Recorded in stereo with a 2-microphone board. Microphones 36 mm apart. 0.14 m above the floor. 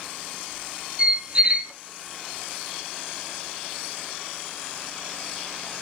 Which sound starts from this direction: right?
A squeak, at 1.0 s.